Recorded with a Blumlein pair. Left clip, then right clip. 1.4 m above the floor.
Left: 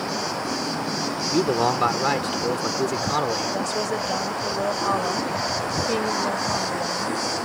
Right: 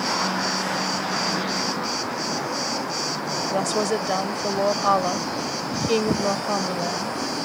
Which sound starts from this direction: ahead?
A woman speaking, at 3.5 s.